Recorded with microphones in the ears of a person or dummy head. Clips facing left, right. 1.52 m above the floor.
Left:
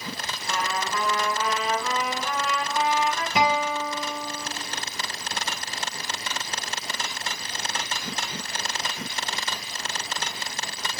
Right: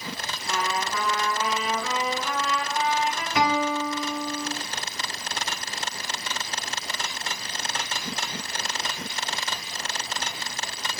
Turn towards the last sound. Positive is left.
turn(degrees=20)  # may be behind; listen again after turning